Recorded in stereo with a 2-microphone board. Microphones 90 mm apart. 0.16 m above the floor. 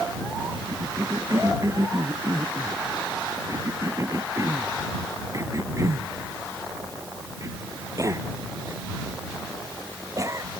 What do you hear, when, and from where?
0.7 s a cough: 35° right (ahead or behind)